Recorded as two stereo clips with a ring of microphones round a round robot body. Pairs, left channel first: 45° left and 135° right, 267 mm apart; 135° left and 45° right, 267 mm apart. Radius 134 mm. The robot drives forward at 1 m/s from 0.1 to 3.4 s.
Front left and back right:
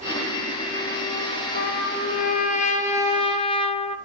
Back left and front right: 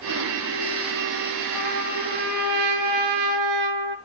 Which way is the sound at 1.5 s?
15° right.